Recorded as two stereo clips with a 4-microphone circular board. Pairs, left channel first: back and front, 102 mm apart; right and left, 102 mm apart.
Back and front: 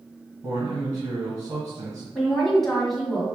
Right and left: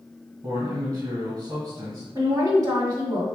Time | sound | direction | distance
0.4 | a man speaking | 75° left | 1.7 m
2.1 | a woman speaking | 95° left | 2.0 m